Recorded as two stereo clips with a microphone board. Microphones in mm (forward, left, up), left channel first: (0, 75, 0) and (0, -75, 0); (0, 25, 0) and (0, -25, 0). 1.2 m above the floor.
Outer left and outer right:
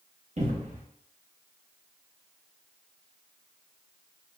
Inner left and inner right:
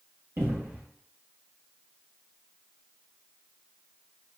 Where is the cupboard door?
55° right (ahead or behind), 1.1 m.